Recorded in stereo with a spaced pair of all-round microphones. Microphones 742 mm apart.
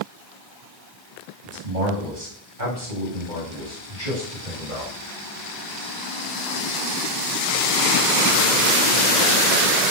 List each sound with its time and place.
1.4 s a man speaking: 80° right, 9.5 m; by 4.9 s 85° right, 8 m